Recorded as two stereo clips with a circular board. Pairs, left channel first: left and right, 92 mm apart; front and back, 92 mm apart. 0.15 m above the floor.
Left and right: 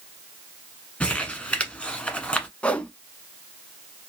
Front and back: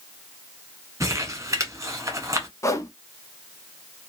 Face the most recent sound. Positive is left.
turn(degrees=20)